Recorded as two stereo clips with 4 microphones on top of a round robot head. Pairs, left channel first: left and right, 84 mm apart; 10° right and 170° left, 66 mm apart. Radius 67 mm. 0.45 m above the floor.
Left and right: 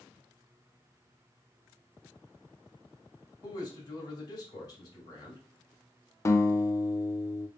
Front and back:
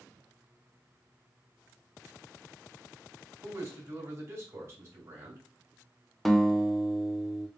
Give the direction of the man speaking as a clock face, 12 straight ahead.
8 o'clock.